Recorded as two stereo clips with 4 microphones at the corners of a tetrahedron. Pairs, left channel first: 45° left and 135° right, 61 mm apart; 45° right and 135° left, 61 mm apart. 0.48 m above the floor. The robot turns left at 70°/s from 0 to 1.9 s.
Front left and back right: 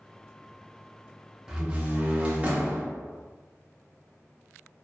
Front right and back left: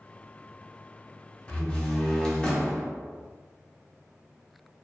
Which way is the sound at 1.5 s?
70° right.